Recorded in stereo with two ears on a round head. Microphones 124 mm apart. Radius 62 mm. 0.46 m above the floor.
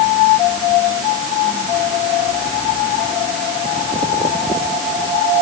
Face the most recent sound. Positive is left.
No sound to turn to.